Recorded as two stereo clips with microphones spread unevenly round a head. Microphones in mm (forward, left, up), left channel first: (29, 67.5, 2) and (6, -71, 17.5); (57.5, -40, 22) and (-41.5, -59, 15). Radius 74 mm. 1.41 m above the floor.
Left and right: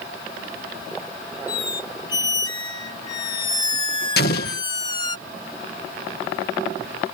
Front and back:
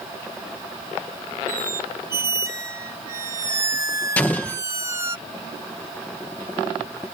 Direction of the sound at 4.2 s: 90° left.